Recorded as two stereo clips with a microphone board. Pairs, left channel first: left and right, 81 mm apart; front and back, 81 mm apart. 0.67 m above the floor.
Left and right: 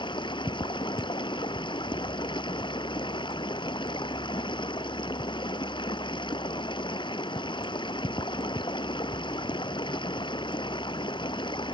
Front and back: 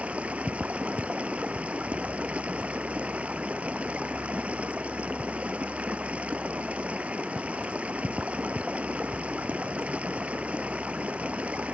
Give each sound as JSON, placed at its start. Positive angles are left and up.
{"t": 0.0, "sound": "running water", "azimuth_deg": 105}